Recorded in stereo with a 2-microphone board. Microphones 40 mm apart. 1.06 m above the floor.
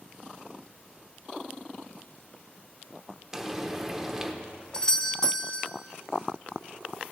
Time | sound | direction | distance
3.3 | frying | 10° right (ahead or behind) | 1.0 m
4.7 | a doorbell | 20° left (ahead or behind) | 0.6 m